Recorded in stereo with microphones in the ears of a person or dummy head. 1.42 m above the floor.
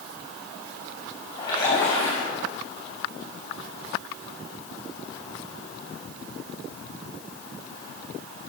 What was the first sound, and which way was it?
A splash, 30° left (ahead or behind).